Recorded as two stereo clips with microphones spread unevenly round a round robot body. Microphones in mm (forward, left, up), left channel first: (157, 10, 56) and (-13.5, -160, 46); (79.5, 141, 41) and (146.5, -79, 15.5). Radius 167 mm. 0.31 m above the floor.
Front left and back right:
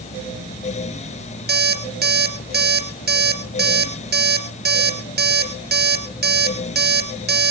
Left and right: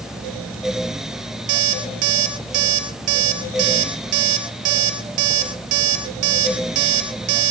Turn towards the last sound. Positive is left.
turn(degrees=-85)